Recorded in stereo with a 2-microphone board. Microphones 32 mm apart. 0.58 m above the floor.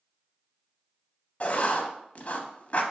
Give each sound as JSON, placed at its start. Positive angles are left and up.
{"t": 1.4, "sound": "writing", "side_deg": 45, "distance_m": 0.6}